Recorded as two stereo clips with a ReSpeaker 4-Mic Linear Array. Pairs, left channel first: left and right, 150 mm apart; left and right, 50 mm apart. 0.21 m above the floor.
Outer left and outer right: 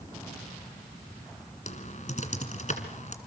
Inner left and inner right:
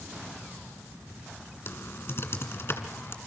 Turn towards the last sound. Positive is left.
turn(degrees=50)  # may be behind; listen again after turning